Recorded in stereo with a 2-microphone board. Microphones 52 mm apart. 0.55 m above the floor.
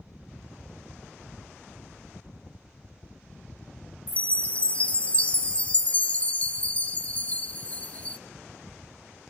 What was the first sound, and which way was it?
A chime, 25° left (ahead or behind).